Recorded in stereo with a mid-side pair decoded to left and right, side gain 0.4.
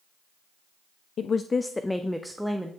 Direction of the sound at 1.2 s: 60° left.